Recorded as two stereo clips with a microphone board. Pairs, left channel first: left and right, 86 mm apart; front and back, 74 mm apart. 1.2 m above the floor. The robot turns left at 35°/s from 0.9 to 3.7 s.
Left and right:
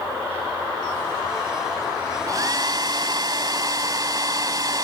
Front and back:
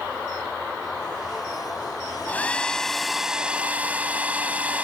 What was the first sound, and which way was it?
A hair dryer, 60° right.